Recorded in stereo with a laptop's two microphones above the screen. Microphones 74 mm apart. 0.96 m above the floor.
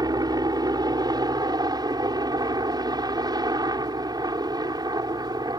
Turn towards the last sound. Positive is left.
turn(degrees=-60)  # may be behind; listen again after turning